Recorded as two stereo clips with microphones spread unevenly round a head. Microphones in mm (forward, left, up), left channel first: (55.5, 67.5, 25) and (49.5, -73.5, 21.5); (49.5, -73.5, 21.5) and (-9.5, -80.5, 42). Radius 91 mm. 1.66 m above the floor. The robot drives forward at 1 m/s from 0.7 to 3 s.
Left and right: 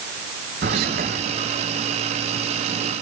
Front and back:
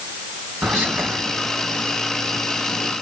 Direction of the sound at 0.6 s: 120° right.